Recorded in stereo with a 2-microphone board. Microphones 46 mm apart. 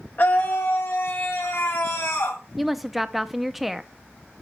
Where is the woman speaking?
5° right (ahead or behind), 0.5 m.